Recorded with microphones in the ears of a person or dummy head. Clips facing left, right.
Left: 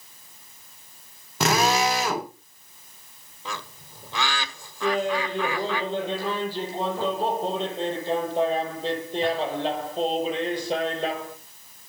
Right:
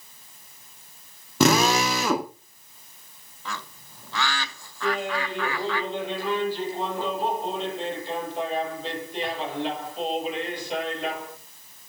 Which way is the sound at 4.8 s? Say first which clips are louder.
Left 3 dB; 25° left (ahead or behind).